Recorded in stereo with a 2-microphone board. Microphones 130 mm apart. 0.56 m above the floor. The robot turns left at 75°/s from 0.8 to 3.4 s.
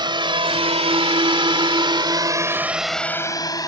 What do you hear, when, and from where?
0.0 s a drone: 35° right (ahead or behind); by 3.7 s 30° left (ahead or behind)